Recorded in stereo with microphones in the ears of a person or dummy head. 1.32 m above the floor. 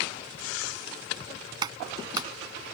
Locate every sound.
1.6 s a clap: 25° right (ahead or behind)